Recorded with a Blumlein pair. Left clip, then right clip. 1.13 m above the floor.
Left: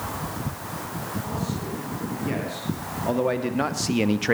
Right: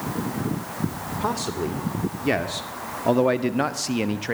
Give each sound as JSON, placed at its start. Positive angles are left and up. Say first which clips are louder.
{"t": 1.2, "sound": "a man speaking", "louder": "right 6 dB", "azimuth_deg": -40, "distance_m": 3.0}